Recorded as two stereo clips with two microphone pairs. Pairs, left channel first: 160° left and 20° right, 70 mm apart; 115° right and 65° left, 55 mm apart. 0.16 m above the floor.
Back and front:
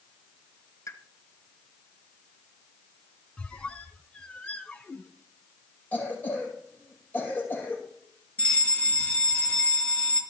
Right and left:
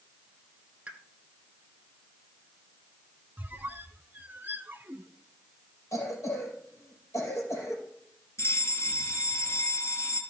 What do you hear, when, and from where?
0.9 s a pop: 130° left, 1.4 m
3.4 s a squeak: 100° left, 0.6 m
5.9 s a cough: 135° right, 4 m
8.4 s a fire alarm: 130° right, 4 m